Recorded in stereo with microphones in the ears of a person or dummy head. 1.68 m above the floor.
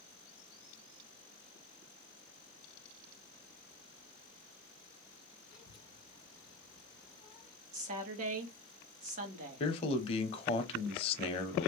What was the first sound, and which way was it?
A child speaking, 35° left (ahead or behind).